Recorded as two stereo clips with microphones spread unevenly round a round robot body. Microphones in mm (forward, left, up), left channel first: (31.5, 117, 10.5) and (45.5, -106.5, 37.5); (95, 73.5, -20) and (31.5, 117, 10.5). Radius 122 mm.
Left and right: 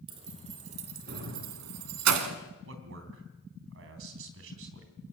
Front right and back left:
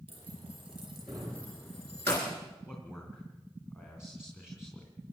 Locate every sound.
0.1 s keys jangling: 155° right, 2.5 m; by 2.4 s 100° right, 2 m
2.6 s a man speaking: 115° right, 3.5 m